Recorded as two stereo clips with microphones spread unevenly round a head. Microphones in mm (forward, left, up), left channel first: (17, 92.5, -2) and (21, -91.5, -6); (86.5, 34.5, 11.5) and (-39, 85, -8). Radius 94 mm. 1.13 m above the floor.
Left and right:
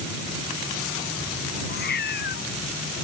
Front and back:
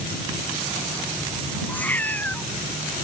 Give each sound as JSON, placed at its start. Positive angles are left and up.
{"t": 1.7, "sound": "a cat meowing", "azimuth_deg": 55}